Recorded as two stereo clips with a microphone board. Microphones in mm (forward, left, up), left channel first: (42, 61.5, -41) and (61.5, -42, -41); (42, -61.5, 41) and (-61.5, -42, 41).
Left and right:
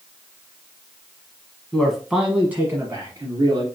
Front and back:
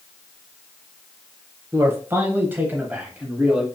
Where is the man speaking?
175° left, 1.0 m; by 3.6 s 110° right, 1.5 m.